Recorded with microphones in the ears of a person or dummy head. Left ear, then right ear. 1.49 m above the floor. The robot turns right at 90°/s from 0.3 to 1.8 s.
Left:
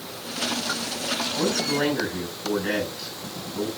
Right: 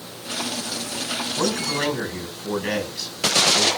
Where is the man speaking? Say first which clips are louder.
Right 1 dB; 125° right, 6.5 m; by 3.7 s 85° right, 6.5 m.